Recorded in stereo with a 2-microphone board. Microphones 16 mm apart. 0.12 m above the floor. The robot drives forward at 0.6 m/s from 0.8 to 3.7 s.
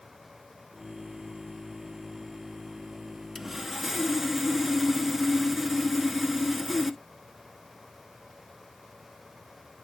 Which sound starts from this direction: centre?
Sawing, at 3.4 s.